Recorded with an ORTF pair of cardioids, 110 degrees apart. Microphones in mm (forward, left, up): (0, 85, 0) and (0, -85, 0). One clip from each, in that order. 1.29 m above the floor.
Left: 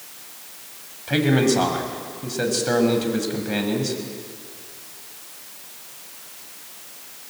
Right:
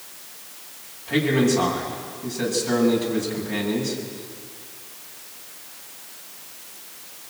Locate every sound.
1.1 s a man speaking: 45° left, 6.5 m